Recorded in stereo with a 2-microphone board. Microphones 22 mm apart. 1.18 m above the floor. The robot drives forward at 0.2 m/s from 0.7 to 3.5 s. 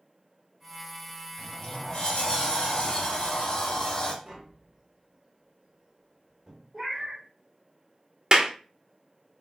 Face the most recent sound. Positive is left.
turn(degrees=-35)  # may be behind; listen again after turning